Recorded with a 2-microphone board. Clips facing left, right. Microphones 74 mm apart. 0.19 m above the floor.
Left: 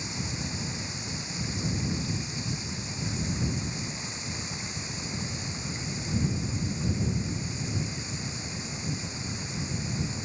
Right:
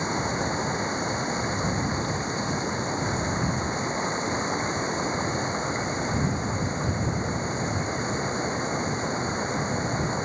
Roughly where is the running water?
Right.